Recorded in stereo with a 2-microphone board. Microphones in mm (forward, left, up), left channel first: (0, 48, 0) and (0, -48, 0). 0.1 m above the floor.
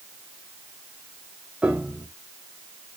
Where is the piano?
10° right (ahead or behind), 1.6 m.